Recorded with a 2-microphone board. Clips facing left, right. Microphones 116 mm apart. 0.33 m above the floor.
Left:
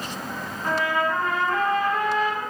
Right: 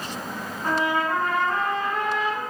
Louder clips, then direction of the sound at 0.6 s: Even; 20° right (ahead or behind).